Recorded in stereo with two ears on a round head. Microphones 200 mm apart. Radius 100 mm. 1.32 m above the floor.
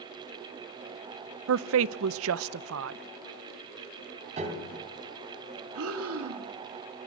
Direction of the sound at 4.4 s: 30° right (ahead or behind).